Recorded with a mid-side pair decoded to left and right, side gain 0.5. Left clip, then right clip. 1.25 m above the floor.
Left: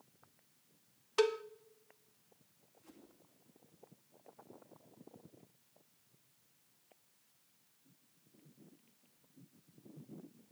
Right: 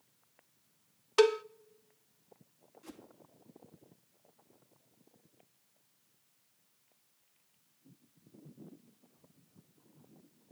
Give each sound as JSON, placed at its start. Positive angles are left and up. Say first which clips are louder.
{"t": 1.2, "sound": "a cowbell", "louder": "right 6 dB", "azimuth_deg": -40, "distance_m": 0.5}
{"t": 2.8, "sound": "a whoosh", "louder": "right 9 dB", "azimuth_deg": -65, "distance_m": 2.5}